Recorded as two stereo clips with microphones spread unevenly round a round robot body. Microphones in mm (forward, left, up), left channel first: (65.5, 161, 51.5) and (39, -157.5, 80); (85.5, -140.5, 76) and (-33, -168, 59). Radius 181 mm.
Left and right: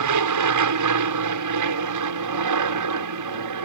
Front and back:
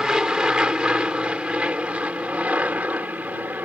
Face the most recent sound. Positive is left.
turn(degrees=-95)